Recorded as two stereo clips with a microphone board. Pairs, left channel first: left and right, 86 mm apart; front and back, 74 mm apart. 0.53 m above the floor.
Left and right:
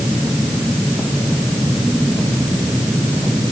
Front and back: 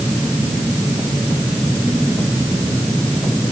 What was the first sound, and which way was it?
Only background noise.